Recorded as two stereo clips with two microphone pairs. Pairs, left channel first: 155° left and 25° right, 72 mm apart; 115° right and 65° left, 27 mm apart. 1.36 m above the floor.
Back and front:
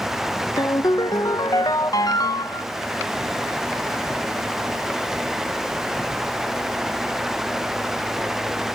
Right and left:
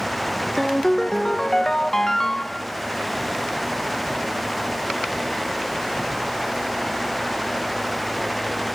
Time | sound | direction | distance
0.6 | a ringtone | 175° left | 0.7 m